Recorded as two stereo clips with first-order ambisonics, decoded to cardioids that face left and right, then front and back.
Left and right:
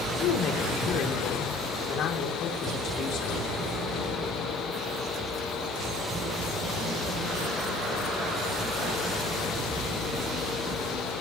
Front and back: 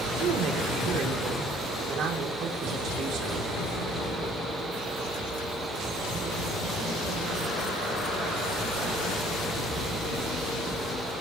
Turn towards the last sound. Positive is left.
turn(degrees=130)